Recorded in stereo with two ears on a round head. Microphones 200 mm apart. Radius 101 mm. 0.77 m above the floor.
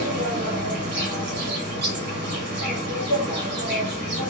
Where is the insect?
55° right (ahead or behind), 2.0 m.